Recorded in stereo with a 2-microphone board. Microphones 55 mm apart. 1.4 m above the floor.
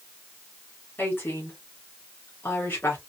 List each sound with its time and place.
1.0 s a woman speaking: 40° left (ahead or behind), 3.5 m